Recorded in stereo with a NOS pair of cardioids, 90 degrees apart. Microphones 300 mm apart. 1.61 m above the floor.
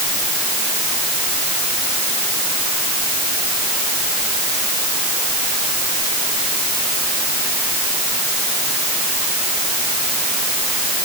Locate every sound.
Only background noise.